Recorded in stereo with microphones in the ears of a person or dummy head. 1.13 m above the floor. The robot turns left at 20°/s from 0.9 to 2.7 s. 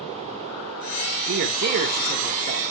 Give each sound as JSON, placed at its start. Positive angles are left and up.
{"t": 1.3, "sound": "a man speaking", "side_deg": -65, "distance_m": 1.3}